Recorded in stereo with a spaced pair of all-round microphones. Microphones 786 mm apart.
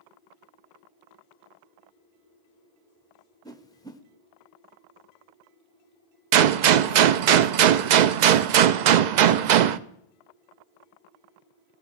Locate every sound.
3.5 s a whoosh: 5° left (ahead or behind), 0.8 m
6.3 s a gunshot: 65° right (ahead or behind), 0.5 m